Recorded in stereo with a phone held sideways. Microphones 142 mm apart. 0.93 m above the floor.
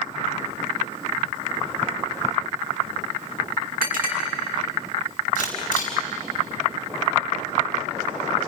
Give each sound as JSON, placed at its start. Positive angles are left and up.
{"t": 3.8, "sound": "a clink", "side_deg": -85, "distance_m": 6.0}
{"t": 5.3, "sound": "a camera shutter", "side_deg": 80, "distance_m": 5.0}